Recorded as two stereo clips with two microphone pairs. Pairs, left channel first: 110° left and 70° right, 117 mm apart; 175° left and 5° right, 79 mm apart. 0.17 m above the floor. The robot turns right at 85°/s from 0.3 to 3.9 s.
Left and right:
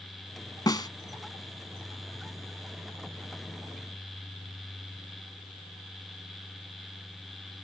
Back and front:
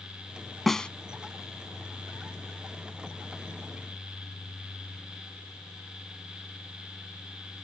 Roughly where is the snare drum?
Left.